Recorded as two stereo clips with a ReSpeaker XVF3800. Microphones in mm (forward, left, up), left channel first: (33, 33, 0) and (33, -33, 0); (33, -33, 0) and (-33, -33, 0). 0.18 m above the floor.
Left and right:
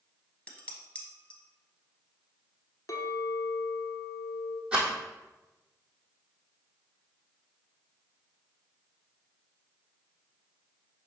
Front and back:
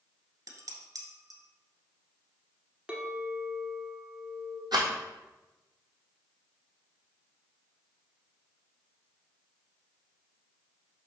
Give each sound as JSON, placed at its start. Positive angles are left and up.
{"t": 0.5, "sound": "dishes clattering", "azimuth_deg": 160, "distance_m": 1.7}
{"t": 2.9, "sound": "a clink", "azimuth_deg": 105, "distance_m": 1.2}
{"t": 4.7, "sound": "a rattle", "azimuth_deg": -165, "distance_m": 2.0}